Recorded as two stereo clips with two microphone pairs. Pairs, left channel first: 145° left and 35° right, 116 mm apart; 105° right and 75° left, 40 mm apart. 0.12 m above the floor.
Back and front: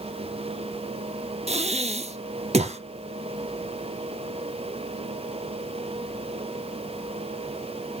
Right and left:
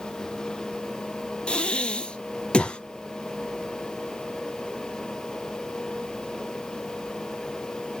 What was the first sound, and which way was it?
Breathing, 45° right.